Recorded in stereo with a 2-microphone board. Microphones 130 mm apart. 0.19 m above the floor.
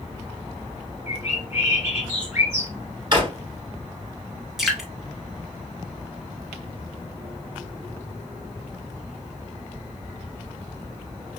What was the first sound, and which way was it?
A bird, 20° right (ahead or behind).